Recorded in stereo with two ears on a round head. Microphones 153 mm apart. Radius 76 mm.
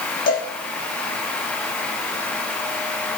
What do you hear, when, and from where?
0.3 s a cowbell: 50° left (ahead or behind), 9.5 m